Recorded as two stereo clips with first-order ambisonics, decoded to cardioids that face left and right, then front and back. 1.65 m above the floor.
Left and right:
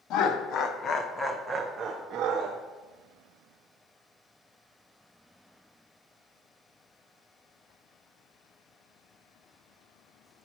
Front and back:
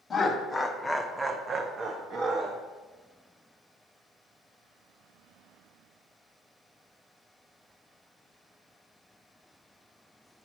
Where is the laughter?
70° left, 0.8 m; by 2.6 s 130° right, 0.8 m.